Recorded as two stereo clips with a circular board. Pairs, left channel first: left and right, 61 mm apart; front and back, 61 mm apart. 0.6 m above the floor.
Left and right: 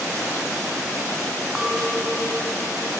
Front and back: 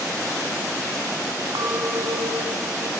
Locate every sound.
1.6 s a clink: 175° right, 3 m